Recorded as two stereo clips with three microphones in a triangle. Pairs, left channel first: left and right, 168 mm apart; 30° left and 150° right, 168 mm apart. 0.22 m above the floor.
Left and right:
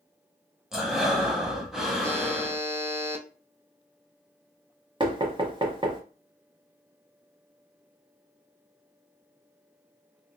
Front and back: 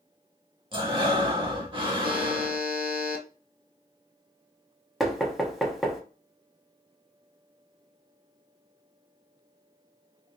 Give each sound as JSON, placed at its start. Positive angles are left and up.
{"t": 0.7, "sound": "breathing", "azimuth_deg": -175, "distance_m": 0.9}
{"t": 2.0, "sound": "a buzzer", "azimuth_deg": -165, "distance_m": 0.6}
{"t": 5.0, "sound": "knocking", "azimuth_deg": -60, "distance_m": 0.8}